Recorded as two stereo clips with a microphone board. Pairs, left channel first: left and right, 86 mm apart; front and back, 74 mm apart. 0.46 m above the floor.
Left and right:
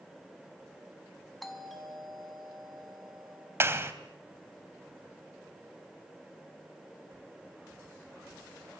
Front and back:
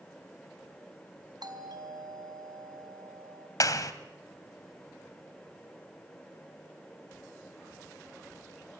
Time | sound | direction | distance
1.4 | a doorbell | straight behind | 5 m
3.6 | a clap | 30° right | 2 m